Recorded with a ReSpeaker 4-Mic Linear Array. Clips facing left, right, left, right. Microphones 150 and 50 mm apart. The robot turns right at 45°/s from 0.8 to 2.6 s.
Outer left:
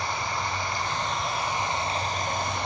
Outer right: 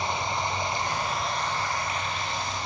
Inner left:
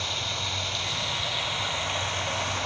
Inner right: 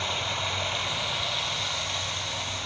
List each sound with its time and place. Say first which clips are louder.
0.0 s running water: outer right 1 dB, inner right 2 dB; 20° right, 4 m; by 2.7 s 60° left, 4 m